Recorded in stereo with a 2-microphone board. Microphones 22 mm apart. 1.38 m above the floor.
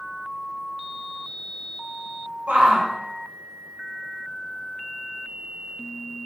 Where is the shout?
75° right (ahead or behind), 1.4 m.